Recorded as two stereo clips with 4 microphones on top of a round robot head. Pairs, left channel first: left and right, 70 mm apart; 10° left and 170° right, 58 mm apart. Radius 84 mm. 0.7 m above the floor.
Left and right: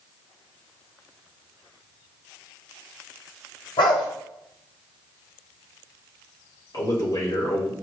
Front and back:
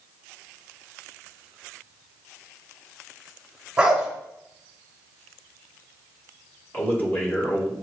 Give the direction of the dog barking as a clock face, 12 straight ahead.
8 o'clock.